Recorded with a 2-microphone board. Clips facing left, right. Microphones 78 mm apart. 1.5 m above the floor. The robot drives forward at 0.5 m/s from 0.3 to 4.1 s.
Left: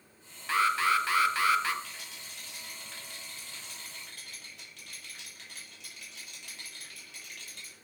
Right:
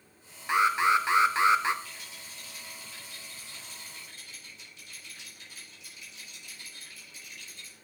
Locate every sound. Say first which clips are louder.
0.5 s an alarm: right 3 dB; 15° right (ahead or behind), 0.8 m; by 1.7 s 20° right (ahead or behind), 0.7 m
1.8 s a rattle: even; 85° left, 3.5 m; by 7.8 s 75° left (ahead or behind), 3.5 m